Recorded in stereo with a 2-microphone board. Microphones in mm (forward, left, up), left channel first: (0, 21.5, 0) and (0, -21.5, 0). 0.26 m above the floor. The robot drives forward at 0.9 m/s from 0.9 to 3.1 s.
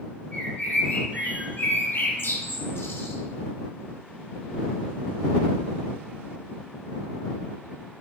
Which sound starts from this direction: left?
A bird, at 0.3 s.